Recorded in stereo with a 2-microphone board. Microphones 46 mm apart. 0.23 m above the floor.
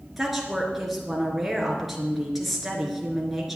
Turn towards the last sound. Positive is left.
turn(degrees=-5)  # may be behind; listen again after turning